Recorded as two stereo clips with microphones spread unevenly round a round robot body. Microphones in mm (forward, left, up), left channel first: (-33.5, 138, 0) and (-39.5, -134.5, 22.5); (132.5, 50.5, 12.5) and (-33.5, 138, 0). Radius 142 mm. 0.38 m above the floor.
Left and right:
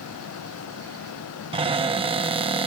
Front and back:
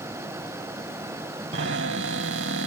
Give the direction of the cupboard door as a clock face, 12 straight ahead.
5 o'clock.